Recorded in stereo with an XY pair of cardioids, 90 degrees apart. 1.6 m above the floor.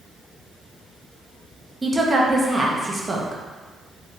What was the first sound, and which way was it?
A woman speaking, 25° right.